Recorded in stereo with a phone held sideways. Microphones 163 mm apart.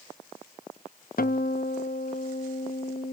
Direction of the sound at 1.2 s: 65° left (ahead or behind).